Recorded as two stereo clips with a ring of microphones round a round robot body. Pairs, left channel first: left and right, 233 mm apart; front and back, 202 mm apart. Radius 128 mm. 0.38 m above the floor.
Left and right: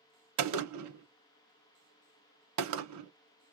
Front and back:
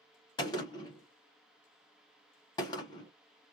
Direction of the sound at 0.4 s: 75° right.